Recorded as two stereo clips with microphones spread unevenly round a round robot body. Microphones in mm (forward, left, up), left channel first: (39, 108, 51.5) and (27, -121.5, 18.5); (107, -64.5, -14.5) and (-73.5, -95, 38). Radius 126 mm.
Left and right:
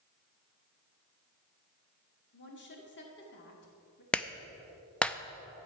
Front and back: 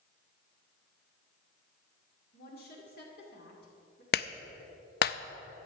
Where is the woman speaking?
45° left, 2 m.